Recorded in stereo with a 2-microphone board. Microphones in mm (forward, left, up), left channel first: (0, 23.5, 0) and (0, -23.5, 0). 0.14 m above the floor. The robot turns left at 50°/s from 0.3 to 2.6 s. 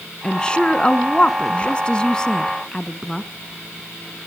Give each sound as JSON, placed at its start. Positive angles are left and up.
{"t": 0.2, "sound": "a woman speaking", "side_deg": 15, "distance_m": 1.1}